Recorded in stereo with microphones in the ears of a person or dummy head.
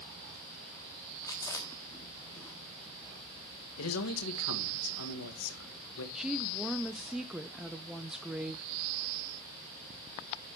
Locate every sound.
1.2 s chewing: 15° left (ahead or behind), 1.4 m
3.8 s a man speaking: 85° left, 2 m
6.2 s a woman speaking: 5° right (ahead or behind), 0.7 m